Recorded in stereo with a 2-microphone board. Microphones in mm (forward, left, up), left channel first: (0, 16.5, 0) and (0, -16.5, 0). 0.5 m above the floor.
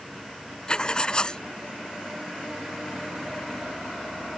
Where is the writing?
25° left (ahead or behind).